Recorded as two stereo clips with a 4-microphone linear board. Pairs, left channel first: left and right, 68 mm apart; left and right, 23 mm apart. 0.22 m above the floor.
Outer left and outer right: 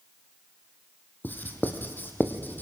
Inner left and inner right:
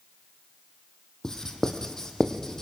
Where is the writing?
30° left (ahead or behind), 2.5 m.